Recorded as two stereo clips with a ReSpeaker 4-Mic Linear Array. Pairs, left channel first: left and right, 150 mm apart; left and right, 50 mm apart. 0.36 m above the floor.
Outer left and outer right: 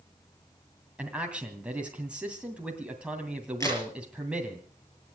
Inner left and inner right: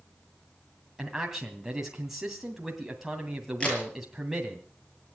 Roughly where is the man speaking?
Centre.